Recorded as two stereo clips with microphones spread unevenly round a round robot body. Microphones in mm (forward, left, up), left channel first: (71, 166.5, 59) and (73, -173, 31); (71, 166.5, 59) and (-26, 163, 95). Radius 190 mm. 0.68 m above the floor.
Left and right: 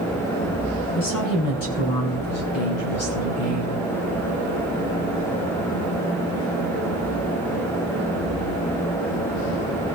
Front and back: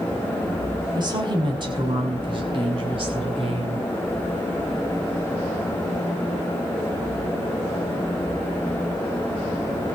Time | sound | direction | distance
0.9 | a woman speaking | 135° left | 6 m